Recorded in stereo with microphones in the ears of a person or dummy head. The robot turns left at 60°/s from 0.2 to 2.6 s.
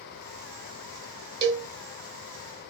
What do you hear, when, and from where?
1.4 s a cowbell: 25° right (ahead or behind), 0.7 m; by 1.7 s 40° right (ahead or behind), 0.7 m